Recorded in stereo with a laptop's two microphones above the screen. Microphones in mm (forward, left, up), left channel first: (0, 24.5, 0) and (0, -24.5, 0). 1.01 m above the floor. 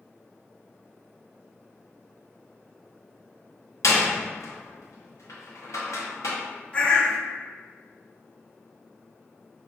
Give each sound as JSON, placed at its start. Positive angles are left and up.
{"t": 3.8, "sound": "a door slam", "side_deg": 80, "distance_m": 0.9}
{"t": 6.7, "sound": "a bird", "side_deg": 25, "distance_m": 0.6}